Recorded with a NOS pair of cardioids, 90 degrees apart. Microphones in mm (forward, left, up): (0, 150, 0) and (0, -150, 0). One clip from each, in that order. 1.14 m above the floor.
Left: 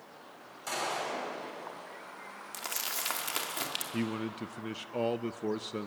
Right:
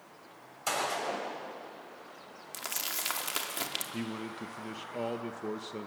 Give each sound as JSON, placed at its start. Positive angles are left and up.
{"t": 0.7, "sound": "a gunshot", "azimuth_deg": -60, "distance_m": 7.0}
{"t": 2.5, "sound": "crumpling", "azimuth_deg": -5, "distance_m": 2.0}
{"t": 3.9, "sound": "a man speaking", "azimuth_deg": 20, "distance_m": 0.6}